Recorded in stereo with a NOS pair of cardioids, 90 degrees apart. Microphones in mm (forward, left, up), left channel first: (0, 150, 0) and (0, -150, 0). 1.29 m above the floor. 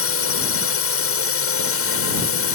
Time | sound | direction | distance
0.0 | a drone | 50° left | ?